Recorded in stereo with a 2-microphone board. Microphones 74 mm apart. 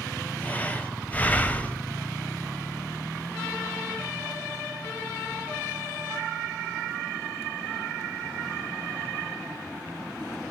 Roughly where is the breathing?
Left.